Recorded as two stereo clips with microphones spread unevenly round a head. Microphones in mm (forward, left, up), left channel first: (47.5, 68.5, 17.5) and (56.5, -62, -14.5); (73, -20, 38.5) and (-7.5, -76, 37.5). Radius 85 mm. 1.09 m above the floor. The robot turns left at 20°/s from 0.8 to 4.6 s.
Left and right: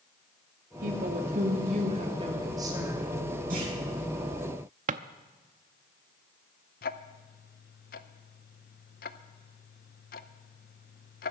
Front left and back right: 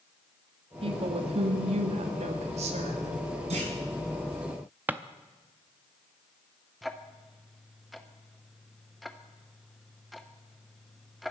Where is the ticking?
125° left, 0.6 m.